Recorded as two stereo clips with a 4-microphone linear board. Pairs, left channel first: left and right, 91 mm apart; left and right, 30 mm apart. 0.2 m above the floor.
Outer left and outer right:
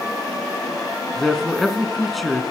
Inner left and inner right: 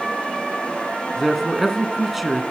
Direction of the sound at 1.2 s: Centre (ahead or behind).